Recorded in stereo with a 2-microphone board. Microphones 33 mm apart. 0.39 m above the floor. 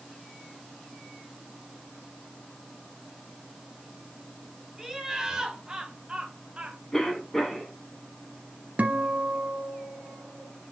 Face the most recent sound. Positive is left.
turn(degrees=-50)  # may be behind; listen again after turning